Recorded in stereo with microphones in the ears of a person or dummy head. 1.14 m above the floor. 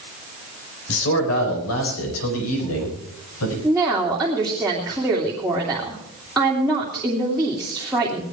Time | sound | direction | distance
0.9 | a man speaking | 85° left | 4.5 m
3.6 | a woman speaking | centre (ahead or behind) | 2.5 m